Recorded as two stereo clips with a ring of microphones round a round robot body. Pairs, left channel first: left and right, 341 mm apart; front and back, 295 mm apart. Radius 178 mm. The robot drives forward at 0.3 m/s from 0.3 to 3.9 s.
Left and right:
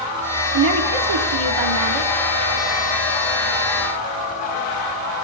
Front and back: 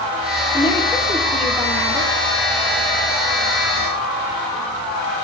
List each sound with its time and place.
0.5 s a woman speaking: 75° right, 1.1 m; by 2.1 s 100° right, 1.1 m